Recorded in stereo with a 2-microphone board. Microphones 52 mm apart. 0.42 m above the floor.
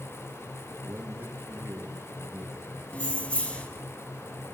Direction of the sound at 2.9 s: 25° left (ahead or behind).